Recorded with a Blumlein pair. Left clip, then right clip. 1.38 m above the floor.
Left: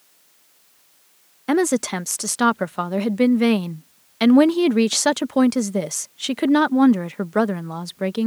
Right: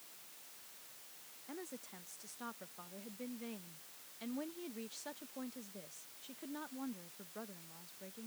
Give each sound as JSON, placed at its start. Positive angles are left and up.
{"t": 1.5, "sound": "a woman speaking", "azimuth_deg": 45}